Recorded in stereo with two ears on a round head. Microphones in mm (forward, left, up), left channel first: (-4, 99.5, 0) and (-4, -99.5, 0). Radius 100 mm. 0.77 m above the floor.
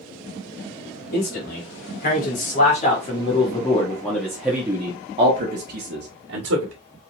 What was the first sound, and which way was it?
A man speaking, 50° left (ahead or behind).